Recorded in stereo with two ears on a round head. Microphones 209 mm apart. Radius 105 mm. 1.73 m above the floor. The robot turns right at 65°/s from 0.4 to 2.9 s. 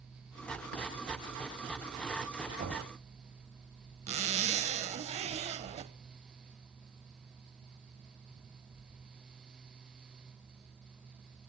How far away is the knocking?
About 7 m.